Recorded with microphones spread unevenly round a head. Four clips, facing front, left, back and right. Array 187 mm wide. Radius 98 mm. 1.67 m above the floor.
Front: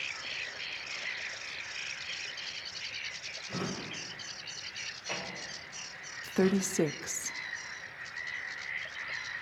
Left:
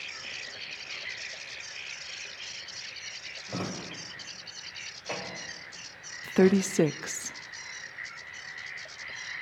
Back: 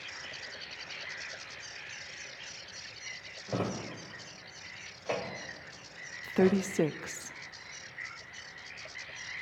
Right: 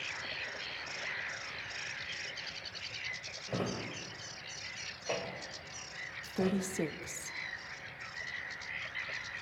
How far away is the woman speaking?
About 0.6 m.